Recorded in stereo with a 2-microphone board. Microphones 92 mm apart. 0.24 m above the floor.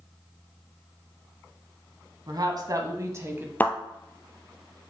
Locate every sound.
2.3 s a woman speaking: 50° right (ahead or behind), 1.6 m; by 3.5 s 20° right (ahead or behind), 1.2 m
3.6 s a thud: 20° left (ahead or behind), 1.0 m